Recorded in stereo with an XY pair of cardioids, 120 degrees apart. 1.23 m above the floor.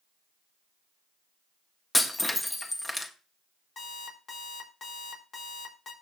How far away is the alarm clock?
About 4.5 m.